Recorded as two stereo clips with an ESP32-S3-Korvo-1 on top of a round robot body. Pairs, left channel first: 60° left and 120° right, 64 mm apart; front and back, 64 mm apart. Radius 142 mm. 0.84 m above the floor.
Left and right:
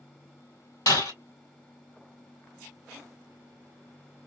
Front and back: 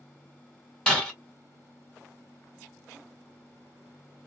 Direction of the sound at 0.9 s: 75° left.